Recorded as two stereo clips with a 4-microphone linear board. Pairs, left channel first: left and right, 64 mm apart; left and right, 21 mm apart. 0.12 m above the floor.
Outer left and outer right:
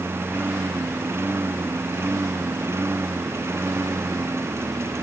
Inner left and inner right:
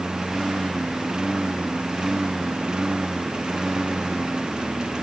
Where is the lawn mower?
40° right (ahead or behind); by 5.0 s 45° right (ahead or behind).